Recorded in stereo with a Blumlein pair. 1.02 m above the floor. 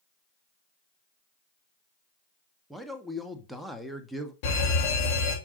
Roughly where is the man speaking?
Ahead.